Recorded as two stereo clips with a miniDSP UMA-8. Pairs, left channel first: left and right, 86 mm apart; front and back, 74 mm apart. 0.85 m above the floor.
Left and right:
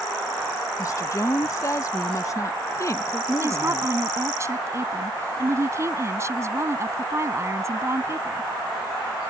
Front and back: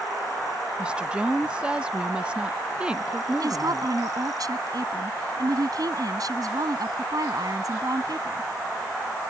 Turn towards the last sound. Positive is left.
turn(degrees=-145)